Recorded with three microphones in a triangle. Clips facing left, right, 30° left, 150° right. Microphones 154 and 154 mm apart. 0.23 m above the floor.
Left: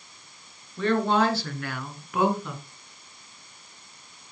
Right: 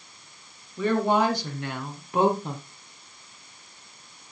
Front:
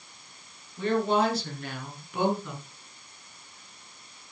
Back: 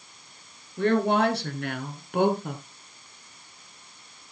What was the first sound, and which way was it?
A woman speaking, 170° right.